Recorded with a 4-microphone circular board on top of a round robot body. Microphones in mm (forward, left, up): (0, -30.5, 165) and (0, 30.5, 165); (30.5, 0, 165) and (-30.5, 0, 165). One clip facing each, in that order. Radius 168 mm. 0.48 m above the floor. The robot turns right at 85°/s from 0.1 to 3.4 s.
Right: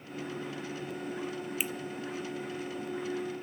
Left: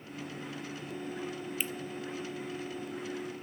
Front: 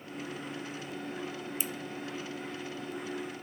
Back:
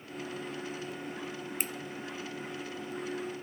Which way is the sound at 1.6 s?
170° right.